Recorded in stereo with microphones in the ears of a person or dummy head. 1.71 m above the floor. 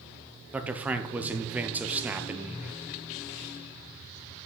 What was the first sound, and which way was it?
A man speaking, 10° right (ahead or behind).